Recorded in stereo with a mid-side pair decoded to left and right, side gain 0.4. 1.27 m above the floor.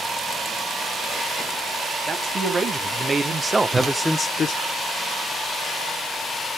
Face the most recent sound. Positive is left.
turn(degrees=-45)